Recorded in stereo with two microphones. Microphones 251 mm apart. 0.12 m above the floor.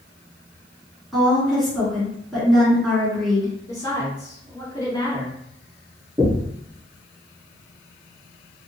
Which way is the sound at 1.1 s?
Centre (ahead or behind).